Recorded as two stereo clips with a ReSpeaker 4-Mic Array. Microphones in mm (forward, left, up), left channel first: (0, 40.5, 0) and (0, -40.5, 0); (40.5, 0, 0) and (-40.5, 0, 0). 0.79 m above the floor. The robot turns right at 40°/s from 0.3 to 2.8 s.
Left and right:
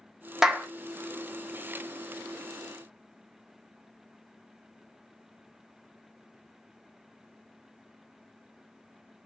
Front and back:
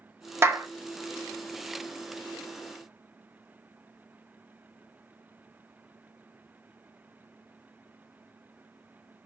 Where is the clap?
170° right, 0.5 m; by 0.7 s 160° right, 0.5 m.